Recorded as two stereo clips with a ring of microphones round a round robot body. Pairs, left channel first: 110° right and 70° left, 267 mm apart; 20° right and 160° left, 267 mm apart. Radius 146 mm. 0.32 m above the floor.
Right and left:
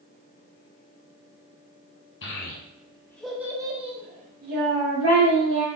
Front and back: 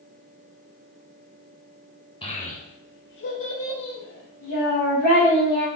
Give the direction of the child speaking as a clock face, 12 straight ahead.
3 o'clock.